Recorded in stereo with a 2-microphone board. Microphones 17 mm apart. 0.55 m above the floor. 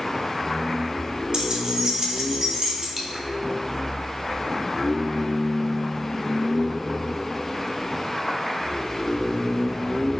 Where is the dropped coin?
15° right (ahead or behind), 1.0 m.